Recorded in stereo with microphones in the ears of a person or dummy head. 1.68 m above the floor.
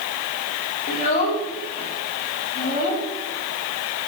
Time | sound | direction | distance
0.9 | a child speaking | 45° left (ahead or behind) | 1.9 m